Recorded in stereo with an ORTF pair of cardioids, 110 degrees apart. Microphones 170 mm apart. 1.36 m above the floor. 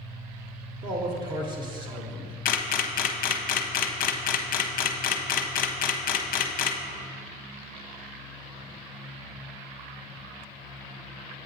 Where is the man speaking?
25° right, 1.0 m.